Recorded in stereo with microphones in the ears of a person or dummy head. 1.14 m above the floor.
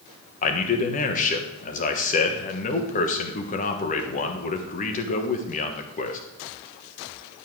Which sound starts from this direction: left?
A man speaking, at 0.4 s.